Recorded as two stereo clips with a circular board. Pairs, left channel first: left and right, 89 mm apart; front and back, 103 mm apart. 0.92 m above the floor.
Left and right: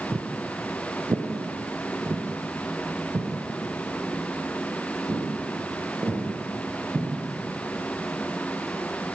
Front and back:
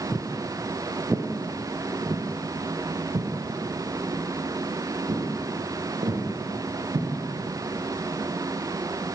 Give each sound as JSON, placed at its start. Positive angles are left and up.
{"t": 0.1, "sound": "footsteps", "azimuth_deg": -70, "distance_m": 1.0}